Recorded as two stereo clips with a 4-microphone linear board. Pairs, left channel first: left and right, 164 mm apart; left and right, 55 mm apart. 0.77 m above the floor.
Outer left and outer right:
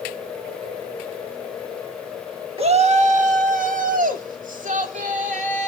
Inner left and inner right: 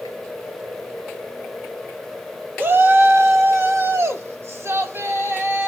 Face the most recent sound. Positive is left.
turn(degrees=-50)  # may be behind; listen again after turning